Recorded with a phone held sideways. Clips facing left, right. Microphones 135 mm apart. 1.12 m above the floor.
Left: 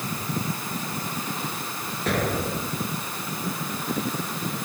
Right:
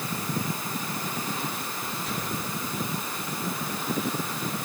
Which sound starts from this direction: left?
An explosion, at 2.1 s.